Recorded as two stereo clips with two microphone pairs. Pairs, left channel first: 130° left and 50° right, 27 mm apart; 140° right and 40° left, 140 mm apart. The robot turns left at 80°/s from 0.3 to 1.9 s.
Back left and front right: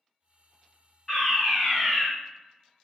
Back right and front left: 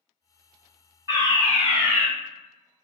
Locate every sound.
1.1 s a fire alarm: 65° left, 2.0 m; by 2.1 s straight ahead, 2.0 m